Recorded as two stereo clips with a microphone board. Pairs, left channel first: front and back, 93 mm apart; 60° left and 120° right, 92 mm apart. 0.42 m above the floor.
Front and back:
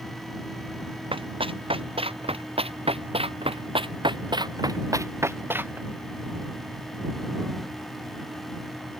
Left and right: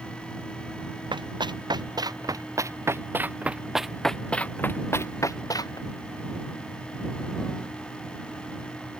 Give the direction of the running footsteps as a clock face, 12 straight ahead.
5 o'clock.